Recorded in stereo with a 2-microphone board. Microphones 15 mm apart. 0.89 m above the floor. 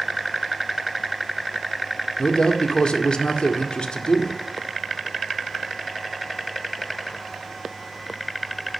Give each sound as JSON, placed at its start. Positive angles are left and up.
{"t": 2.2, "sound": "a man speaking", "side_deg": 80, "distance_m": 1.9}